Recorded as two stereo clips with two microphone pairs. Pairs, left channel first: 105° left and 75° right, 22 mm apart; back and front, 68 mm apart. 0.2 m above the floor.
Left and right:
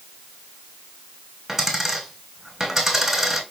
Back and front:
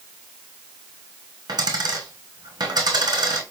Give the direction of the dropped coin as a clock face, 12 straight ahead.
12 o'clock.